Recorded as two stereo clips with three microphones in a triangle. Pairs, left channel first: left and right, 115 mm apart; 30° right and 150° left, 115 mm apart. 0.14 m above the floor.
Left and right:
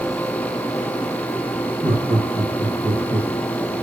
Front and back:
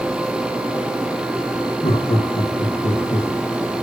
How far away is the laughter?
About 4.5 m.